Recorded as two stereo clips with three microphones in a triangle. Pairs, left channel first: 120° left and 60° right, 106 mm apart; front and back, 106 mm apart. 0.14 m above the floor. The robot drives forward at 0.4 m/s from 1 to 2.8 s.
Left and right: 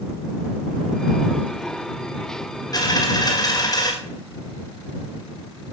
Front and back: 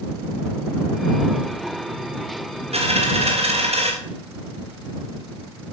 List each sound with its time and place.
2.7 s a dropped coin: 175° left, 5.5 m